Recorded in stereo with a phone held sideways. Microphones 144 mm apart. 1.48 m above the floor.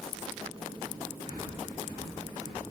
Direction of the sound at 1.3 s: 85° right.